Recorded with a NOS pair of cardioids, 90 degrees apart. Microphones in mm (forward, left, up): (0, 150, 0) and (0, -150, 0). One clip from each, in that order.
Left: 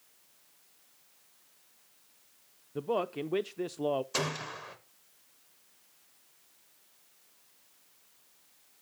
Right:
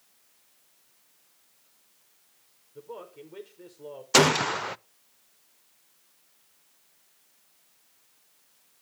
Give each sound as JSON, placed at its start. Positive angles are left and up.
{"t": 2.8, "sound": "a man speaking", "azimuth_deg": 70, "distance_m": 0.6}
{"t": 4.1, "sound": "a gunshot", "azimuth_deg": -60, "distance_m": 0.5}